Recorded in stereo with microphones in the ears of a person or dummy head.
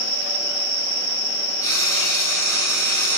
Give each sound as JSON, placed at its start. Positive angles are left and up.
{"t": 1.6, "sound": "frying", "side_deg": 20, "distance_m": 7.5}